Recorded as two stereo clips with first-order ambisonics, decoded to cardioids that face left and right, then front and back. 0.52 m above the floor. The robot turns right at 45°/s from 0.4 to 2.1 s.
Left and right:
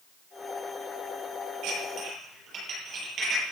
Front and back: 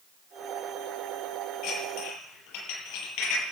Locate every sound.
1.6 s dishes clattering: 45° right, 9.5 m; by 3.4 s 25° right, 9.5 m